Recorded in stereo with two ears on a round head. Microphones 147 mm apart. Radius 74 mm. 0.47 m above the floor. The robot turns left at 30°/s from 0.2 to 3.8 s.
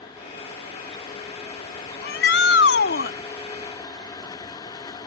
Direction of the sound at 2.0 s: 100° left.